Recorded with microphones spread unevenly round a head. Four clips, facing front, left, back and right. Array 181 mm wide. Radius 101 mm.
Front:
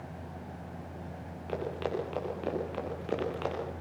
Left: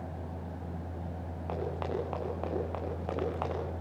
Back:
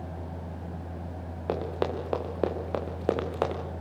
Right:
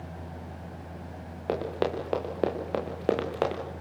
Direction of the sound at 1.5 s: 140° right.